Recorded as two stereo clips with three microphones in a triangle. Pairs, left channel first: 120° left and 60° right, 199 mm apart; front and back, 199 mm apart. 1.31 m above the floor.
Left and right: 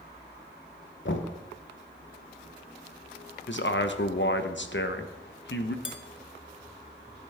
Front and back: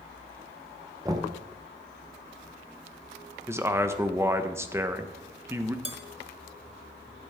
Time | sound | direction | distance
1.1 | knocking | 110° left | 1.0 m
3.5 | a man speaking | 105° left | 0.9 m
5.8 | dishes clattering | 120° left | 1.4 m